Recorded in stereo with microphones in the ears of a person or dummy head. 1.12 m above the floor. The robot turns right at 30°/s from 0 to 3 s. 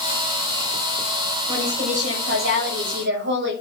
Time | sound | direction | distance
1.5 | a woman speaking | 150° right | 6 m